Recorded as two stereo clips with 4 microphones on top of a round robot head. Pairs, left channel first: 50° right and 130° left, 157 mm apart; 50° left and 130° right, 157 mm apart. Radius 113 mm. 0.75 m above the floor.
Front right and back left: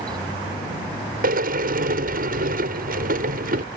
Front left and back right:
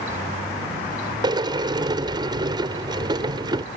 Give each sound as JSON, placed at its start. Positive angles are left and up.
{"t": 1.2, "sound": "a sliding door", "azimuth_deg": 165}